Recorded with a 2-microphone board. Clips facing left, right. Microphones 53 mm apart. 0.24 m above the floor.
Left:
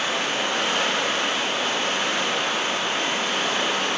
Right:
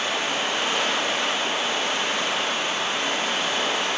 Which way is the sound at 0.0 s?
60° left (ahead or behind).